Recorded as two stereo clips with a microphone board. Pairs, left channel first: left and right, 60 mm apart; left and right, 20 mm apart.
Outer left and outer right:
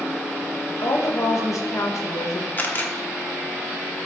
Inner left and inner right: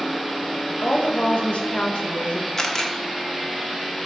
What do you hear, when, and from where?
0.8 s a woman speaking: 65° left (ahead or behind), 1.7 m
2.6 s a camera shutter: 30° left (ahead or behind), 1.2 m